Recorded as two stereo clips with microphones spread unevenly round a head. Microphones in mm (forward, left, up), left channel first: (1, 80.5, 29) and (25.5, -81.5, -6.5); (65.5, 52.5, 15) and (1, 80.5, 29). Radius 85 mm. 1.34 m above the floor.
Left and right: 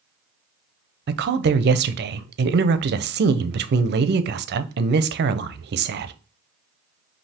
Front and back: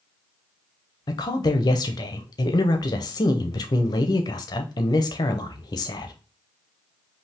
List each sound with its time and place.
1.1 s a woman speaking: 60° right, 0.6 m